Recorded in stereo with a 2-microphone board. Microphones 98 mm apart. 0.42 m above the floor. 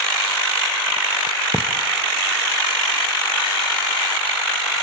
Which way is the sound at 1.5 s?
10° left (ahead or behind).